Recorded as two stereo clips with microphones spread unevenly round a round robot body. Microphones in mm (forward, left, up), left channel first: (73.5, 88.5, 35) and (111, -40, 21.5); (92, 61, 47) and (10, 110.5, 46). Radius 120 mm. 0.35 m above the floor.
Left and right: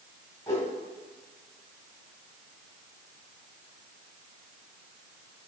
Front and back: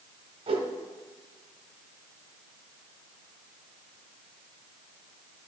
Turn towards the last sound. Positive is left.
turn(degrees=180)